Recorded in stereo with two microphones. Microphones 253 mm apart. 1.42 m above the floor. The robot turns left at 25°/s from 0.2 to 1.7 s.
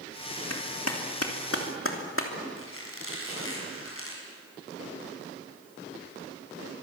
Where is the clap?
85° left, 3 m; by 2.3 s 55° left (ahead or behind), 3 m.